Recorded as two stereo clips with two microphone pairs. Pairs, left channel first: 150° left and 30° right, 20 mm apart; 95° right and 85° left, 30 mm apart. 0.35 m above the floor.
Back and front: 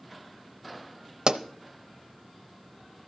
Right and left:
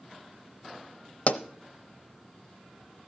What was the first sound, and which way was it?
A pop, 75° right.